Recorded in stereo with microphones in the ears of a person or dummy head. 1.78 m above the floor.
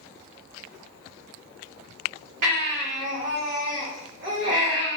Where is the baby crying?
50° right (ahead or behind), 2 m.